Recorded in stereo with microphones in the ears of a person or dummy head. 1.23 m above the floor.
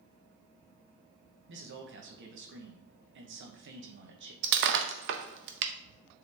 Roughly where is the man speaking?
Right.